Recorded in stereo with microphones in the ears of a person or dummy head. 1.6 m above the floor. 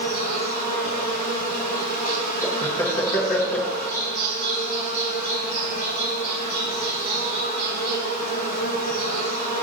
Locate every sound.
0.0 s an insect: 45° left (ahead or behind), 5 m
2.4 s laughter: 10° left (ahead or behind), 1.6 m